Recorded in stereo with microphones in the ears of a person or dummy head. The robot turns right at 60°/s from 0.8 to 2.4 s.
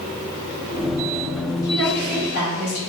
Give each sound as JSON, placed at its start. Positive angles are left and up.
{"t": 1.6, "sound": "a woman speaking", "azimuth_deg": 15, "distance_m": 1.7}